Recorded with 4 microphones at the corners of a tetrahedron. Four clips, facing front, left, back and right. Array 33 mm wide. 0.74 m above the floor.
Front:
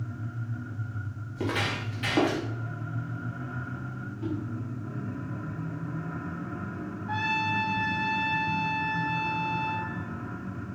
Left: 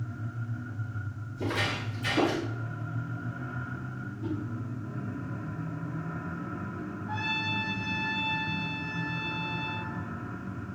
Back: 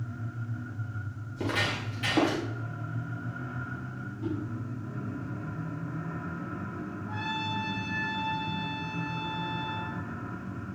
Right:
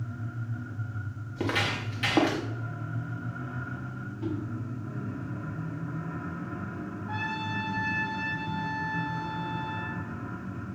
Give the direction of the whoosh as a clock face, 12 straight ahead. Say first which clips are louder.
Right 1 dB, front 1 dB; 2 o'clock.